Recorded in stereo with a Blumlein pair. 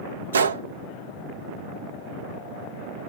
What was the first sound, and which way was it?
A gunshot, 70° right.